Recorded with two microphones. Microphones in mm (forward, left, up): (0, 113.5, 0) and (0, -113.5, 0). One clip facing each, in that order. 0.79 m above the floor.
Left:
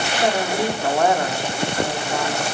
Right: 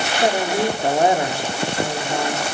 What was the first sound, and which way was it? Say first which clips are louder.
A woman speaking: right 2 dB; 20° right (ahead or behind).